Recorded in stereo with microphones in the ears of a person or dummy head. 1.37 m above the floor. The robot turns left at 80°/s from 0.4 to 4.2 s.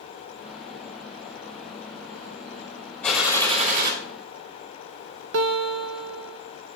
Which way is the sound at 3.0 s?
15° left.